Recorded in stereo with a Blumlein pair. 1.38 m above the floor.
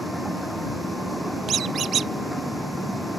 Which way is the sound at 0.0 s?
Straight ahead.